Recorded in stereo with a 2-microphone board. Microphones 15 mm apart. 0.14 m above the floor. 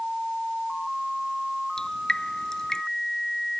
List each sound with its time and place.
1.8 s dripping: 45° left (ahead or behind)